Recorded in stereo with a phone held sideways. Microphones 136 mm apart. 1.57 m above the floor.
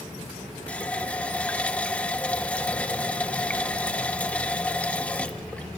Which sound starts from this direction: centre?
A running tap, at 0.7 s.